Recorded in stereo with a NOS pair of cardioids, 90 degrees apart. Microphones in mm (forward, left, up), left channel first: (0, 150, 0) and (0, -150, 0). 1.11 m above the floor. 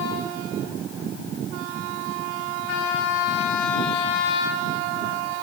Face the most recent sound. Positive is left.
No sound to turn to.